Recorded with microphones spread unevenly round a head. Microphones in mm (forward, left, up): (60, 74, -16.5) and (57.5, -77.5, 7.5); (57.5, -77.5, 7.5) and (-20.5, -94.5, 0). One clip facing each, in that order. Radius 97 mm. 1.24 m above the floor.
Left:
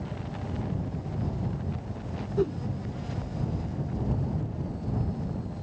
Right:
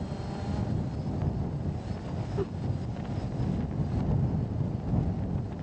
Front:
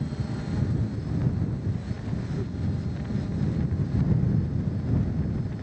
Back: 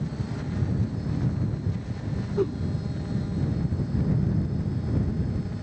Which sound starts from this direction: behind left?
A whoosh, at 2.4 s.